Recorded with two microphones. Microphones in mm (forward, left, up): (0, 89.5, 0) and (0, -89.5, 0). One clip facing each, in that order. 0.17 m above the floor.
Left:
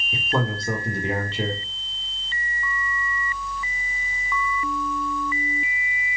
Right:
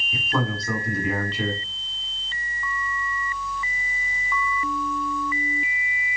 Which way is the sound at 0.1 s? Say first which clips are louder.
Left 1 dB; 25° left (ahead or behind).